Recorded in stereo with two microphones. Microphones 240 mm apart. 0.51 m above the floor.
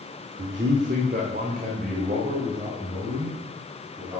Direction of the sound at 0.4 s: 55° right (ahead or behind).